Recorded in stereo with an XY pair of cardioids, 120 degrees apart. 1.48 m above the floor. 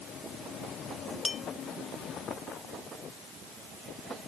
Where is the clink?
25° left.